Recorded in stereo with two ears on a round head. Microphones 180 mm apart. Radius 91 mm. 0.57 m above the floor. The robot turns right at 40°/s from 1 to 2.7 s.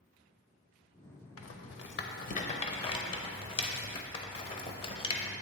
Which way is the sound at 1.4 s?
75° left (ahead or behind).